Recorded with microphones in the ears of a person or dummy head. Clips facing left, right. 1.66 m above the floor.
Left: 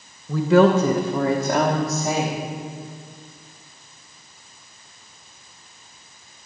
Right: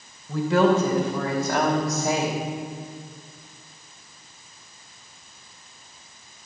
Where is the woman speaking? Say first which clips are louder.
Left 4 dB; 60° left (ahead or behind), 1.2 m; by 2.4 s 5° right (ahead or behind), 1.7 m.